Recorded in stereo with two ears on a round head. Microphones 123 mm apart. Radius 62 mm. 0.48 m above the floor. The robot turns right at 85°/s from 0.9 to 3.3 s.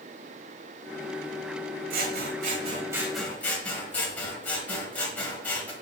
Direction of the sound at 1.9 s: 110° right.